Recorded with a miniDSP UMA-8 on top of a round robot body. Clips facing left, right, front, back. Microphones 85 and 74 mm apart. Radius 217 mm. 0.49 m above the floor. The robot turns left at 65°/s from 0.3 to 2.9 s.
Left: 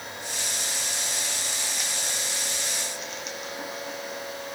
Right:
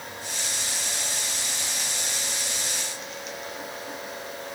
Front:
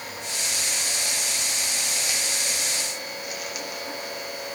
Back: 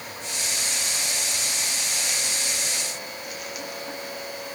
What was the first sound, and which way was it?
Only background noise.